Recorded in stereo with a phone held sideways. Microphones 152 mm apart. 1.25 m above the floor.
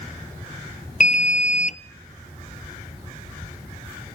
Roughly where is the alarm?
Left.